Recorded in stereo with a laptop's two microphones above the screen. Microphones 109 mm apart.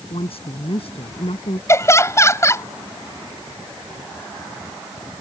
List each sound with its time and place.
0.1 s a woman speaking: 60° left (ahead or behind); by 1.6 s 65° left (ahead or behind)
1.7 s laughter: 25° left (ahead or behind)